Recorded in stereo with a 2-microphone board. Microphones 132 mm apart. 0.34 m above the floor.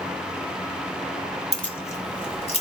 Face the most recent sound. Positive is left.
turn(degrees=50)  # may be behind; listen again after turning